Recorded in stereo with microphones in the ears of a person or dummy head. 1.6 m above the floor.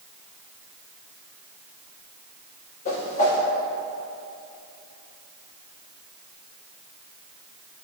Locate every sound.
2.9 s a whoosh: 45° left (ahead or behind), 1.4 m